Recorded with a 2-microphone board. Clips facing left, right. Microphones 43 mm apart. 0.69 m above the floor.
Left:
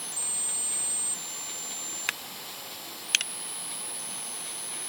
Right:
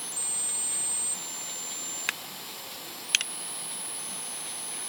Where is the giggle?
I don't hear a giggle.